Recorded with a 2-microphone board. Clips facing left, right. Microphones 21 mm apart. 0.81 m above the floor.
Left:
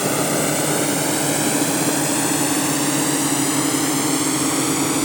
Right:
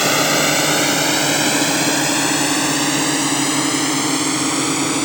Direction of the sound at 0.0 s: 55° right (ahead or behind).